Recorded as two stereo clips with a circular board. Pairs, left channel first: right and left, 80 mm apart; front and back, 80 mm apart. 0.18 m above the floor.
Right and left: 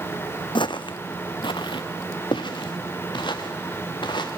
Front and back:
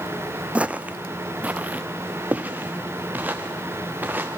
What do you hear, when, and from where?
0.6 s footsteps: 105° right, 0.6 m; by 4.3 s 110° right, 3 m